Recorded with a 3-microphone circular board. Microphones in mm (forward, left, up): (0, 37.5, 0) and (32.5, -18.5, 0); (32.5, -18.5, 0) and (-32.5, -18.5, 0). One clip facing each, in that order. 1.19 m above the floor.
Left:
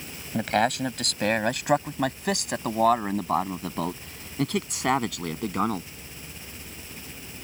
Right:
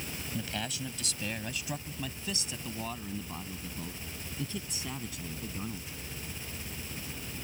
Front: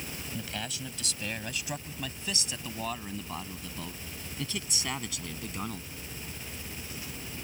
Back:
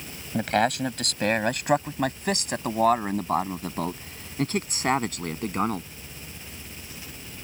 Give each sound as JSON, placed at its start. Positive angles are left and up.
{"t": 0.3, "sound": "a man speaking", "azimuth_deg": 150}